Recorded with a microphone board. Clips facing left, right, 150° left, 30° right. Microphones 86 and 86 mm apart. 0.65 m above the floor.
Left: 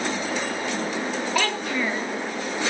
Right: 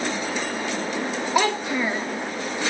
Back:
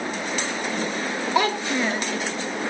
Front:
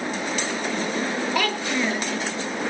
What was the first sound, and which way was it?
A child speaking, 155° right.